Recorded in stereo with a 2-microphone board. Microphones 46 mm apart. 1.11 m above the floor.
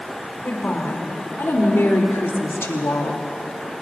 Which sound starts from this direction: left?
A woman speaking, at 0.4 s.